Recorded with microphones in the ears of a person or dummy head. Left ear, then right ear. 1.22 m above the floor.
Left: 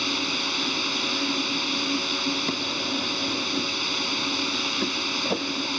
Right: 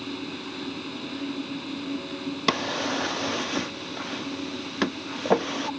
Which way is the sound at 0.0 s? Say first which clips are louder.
Left 10 dB; 60° left (ahead or behind).